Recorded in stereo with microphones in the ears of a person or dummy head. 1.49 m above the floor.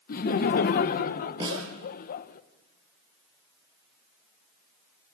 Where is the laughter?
50° left (ahead or behind), 1.2 m.